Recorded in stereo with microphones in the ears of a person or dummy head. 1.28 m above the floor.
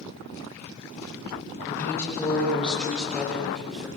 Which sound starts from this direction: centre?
A woman speaking, at 1.6 s.